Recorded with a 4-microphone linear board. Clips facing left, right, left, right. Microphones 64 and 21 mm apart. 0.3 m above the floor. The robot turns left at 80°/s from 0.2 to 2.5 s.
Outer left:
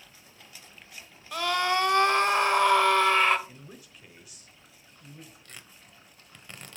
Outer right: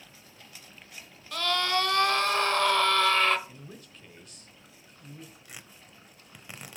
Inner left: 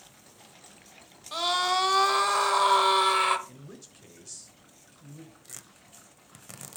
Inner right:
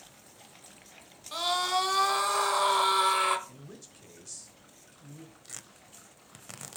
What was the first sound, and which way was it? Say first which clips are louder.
A scream: outer left 2 dB, inner left 2 dB; 10° left (ahead or behind).